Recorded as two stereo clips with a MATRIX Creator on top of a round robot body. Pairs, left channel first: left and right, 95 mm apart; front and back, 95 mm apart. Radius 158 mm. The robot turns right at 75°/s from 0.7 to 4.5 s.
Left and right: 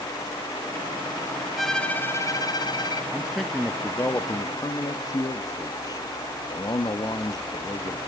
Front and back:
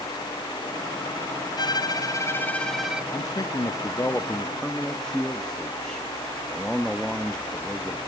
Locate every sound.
1.6 s a violin: 5° right, 1.3 m; by 3.0 s 105° left, 1.3 m
3.1 s a man speaking: 25° right, 1.2 m; by 8.0 s 80° left, 1.2 m